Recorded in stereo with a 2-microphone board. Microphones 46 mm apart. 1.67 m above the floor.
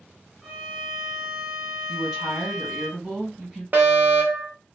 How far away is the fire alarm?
About 0.9 m.